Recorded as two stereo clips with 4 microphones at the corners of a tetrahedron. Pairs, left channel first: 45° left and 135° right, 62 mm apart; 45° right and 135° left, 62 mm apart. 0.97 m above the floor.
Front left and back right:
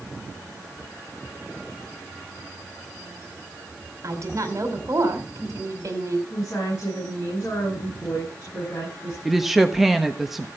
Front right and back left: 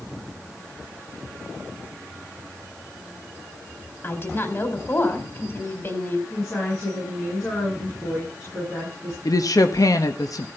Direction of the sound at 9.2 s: 50° right.